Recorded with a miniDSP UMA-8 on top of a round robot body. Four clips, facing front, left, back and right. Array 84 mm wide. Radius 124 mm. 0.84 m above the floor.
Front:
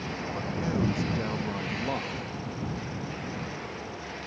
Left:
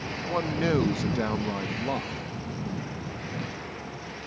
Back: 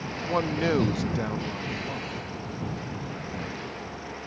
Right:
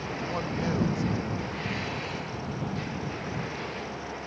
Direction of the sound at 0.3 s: 160° left.